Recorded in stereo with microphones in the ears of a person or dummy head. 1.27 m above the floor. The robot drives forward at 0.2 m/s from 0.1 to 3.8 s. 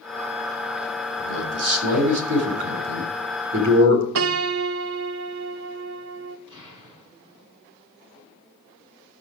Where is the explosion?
25° right (ahead or behind), 4 m.